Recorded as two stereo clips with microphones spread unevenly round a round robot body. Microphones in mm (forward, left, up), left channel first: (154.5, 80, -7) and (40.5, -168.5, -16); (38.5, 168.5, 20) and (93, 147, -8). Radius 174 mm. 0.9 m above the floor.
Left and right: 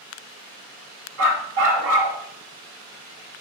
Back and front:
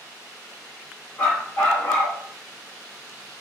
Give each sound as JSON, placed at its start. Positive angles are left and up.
{"t": 1.2, "sound": "a dog barking", "azimuth_deg": -160, "distance_m": 1.7}